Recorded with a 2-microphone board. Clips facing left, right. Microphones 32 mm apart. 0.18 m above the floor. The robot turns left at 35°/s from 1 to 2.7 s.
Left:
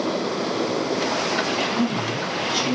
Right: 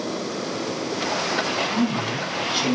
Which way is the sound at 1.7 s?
40° right.